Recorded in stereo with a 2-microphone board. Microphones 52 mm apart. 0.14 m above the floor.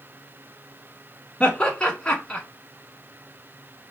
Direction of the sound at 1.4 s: 20° left (ahead or behind).